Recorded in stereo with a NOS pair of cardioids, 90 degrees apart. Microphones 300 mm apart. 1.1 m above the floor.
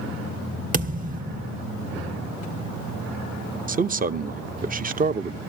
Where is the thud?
25° right, 1.4 m.